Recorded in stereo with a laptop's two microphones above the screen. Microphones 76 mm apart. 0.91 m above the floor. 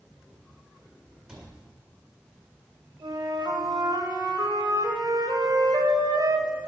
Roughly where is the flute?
Right.